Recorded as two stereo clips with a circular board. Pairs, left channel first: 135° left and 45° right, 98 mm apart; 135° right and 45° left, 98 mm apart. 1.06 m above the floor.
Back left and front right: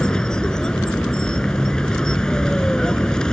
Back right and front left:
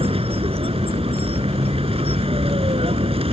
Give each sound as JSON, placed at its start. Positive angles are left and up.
{"t": 0.0, "sound": "a vehicle", "azimuth_deg": 55}